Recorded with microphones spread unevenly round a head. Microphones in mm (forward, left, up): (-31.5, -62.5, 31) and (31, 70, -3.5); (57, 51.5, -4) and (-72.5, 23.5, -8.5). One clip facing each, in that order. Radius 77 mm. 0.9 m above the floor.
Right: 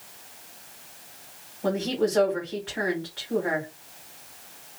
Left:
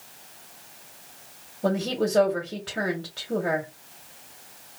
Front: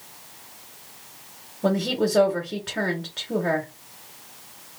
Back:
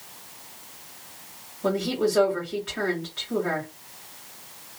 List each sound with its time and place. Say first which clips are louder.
1.6 s a woman speaking: even, front 1 dB; 35° left, 1.6 m